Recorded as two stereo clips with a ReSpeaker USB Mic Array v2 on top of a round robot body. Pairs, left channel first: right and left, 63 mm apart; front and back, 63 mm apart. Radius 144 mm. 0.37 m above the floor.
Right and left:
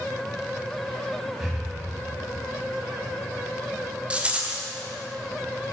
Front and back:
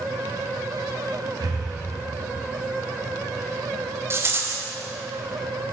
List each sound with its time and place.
1.4 s breathing: 175° left, 2.0 m
4.1 s a rattle: 155° left, 1.5 m